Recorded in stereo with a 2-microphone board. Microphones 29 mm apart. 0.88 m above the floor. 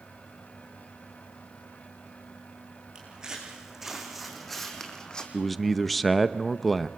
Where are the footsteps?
20° right (ahead or behind), 4.5 m; by 5.2 s 30° left (ahead or behind), 3 m.